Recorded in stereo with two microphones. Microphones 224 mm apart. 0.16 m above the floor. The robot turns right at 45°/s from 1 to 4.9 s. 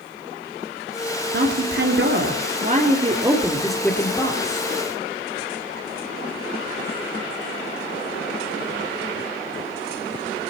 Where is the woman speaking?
105° right, 3 m; by 4.7 s 45° left, 3 m.